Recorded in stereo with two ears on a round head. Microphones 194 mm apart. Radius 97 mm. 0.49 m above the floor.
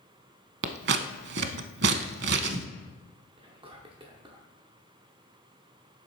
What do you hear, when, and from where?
0.6 s scissors: 50° right (ahead or behind), 0.6 m
3.4 s whispering: 25° right (ahead or behind), 0.8 m